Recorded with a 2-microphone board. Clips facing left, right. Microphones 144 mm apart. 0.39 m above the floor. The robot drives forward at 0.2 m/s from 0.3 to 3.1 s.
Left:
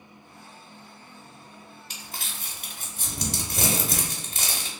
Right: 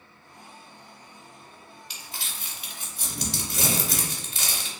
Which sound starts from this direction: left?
Crumpling, at 1.9 s.